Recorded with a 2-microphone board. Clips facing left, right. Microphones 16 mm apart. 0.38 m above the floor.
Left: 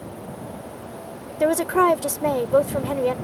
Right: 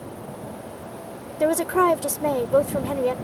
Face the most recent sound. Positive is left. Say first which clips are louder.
# left 1 dB
turn(degrees=15)  # may be behind; listen again after turning